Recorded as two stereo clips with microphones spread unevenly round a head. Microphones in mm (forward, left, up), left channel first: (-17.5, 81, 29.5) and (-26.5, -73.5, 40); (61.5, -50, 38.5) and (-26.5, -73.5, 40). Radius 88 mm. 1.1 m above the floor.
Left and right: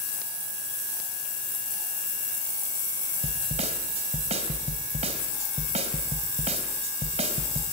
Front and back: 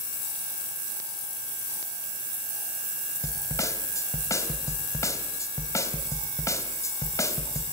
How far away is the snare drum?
About 3 m.